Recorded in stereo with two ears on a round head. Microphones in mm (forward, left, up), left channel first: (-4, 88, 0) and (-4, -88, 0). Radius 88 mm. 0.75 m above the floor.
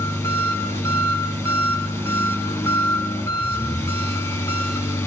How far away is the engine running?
About 7 m.